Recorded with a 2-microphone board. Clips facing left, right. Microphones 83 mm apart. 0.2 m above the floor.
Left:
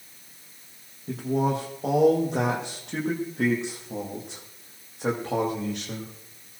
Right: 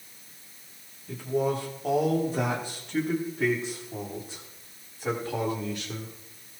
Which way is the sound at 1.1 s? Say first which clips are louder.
Left 2 dB; 85° left.